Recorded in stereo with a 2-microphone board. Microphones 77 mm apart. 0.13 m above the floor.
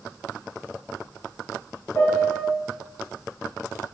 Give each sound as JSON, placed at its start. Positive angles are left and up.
{"t": 1.9, "sound": "a piano", "side_deg": 30, "distance_m": 1.4}